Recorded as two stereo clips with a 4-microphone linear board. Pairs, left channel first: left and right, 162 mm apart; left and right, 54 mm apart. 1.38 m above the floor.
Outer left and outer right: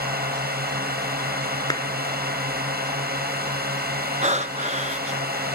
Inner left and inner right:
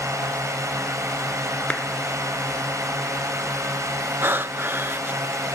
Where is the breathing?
45° right (ahead or behind).